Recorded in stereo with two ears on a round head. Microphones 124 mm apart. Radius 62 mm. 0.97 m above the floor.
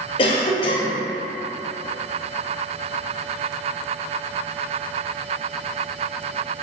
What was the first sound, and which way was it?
A cough, 40° left (ahead or behind).